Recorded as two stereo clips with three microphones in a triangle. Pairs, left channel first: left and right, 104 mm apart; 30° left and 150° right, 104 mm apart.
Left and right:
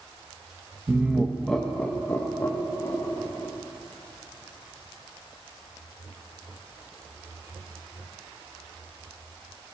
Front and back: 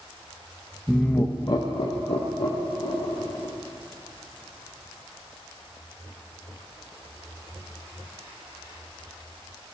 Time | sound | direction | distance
0.9 | laughter | 60° right | 0.5 m